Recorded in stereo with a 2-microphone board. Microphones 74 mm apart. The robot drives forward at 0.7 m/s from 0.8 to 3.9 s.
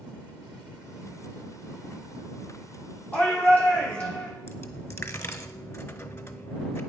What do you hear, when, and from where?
3.1 s a shout: 20° left (ahead or behind), 4 m
4.5 s a dropped coin: 35° left (ahead or behind), 0.7 m